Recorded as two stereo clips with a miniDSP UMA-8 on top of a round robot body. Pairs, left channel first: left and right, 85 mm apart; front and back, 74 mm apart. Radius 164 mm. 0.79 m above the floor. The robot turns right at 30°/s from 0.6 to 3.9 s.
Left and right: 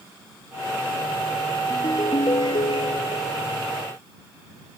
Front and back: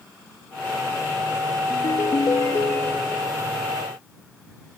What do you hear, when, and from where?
1.7 s a ringtone: 30° left; by 3.3 s 80° left